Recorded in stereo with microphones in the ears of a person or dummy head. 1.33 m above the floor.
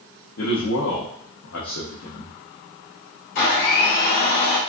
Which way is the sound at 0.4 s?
85° left.